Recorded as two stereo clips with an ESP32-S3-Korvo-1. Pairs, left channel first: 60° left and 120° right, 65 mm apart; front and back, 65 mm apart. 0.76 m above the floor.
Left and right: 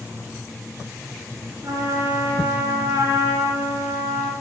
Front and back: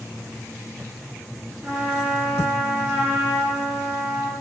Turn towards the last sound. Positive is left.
turn(degrees=-120)